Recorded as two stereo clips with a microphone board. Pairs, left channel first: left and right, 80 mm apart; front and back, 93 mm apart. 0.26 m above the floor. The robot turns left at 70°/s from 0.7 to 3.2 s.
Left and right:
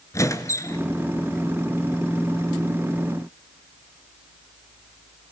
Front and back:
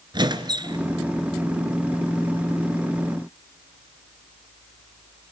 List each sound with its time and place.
0.1 s a squeak: 140° left, 1.5 m; by 0.8 s 135° left, 1.5 m